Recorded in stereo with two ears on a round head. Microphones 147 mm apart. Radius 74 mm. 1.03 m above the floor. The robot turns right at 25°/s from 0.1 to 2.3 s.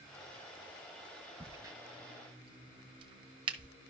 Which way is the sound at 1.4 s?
15° right (ahead or behind).